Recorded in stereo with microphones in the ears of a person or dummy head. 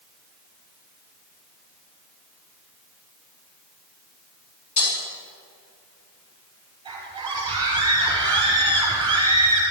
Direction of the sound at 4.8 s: 40° left (ahead or behind).